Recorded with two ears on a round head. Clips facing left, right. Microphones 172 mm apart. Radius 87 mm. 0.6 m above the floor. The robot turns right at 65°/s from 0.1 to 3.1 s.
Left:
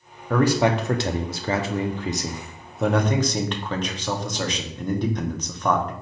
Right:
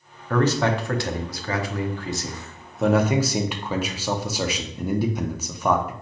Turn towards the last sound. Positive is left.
turn(degrees=-10)  # may be behind; listen again after turning